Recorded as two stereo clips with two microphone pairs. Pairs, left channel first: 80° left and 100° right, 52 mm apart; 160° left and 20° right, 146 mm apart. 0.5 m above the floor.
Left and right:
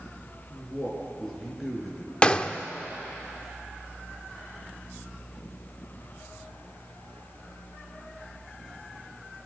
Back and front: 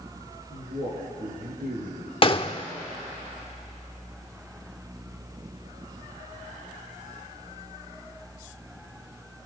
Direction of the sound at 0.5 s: 10° right.